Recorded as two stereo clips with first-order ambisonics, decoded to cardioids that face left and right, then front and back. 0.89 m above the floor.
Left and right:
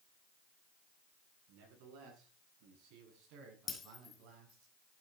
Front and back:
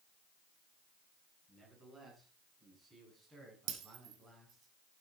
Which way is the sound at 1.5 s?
105° right.